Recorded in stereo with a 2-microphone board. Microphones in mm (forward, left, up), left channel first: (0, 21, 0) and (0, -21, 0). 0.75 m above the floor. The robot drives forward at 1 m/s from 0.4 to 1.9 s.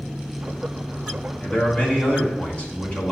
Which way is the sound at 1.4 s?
45° left (ahead or behind).